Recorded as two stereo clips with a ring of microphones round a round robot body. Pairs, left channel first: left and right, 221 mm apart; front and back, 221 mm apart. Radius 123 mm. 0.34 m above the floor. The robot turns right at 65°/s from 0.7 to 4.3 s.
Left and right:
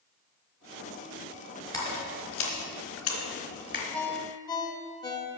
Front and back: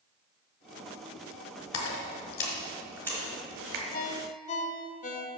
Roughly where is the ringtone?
Ahead.